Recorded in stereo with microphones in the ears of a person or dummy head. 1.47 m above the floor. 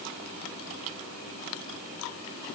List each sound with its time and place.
Only background noise.